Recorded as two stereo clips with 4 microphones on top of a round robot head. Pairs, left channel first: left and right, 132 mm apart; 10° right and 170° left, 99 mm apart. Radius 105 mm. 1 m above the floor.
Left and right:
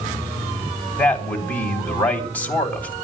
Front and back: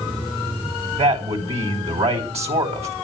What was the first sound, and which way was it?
A man speaking, 170° left.